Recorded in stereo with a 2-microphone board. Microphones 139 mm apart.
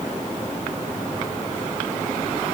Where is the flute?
No flute in this recording.